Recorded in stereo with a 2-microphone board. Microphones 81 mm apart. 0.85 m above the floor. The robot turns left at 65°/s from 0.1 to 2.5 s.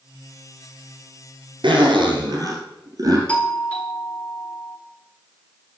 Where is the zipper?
75° right, 3 m; by 3.2 s 130° right, 3 m.